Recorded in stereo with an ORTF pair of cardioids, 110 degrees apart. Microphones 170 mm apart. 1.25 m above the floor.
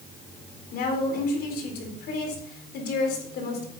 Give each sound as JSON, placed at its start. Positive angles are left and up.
{"t": 0.7, "sound": "a woman speaking", "azimuth_deg": 70, "distance_m": 4.0}